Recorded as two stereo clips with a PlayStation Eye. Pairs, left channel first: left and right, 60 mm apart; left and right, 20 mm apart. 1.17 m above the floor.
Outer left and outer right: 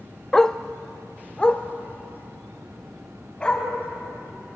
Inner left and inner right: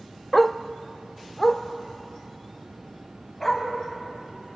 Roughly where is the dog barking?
Centre.